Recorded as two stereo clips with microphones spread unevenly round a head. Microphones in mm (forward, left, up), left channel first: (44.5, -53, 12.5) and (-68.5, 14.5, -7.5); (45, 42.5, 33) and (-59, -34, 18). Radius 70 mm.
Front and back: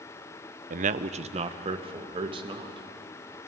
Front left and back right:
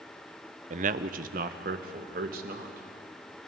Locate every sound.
0.7 s a man speaking: straight behind, 0.7 m; by 2.9 s 155° right, 2.5 m